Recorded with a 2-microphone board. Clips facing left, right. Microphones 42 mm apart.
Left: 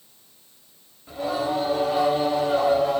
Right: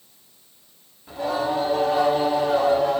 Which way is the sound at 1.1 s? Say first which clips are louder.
Right 1 dB; centre (ahead or behind).